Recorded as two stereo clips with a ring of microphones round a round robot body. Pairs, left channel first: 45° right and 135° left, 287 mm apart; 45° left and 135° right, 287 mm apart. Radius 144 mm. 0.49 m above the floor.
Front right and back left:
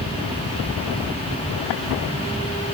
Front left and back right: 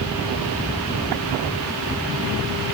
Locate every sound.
Only background noise.